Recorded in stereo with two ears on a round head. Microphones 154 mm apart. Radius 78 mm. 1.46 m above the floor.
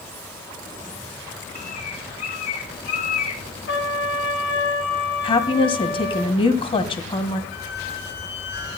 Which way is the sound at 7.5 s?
55° left (ahead or behind).